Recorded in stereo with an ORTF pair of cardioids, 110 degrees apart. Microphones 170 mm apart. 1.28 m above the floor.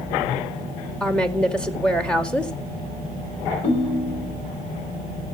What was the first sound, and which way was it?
A woman speaking, 5° left.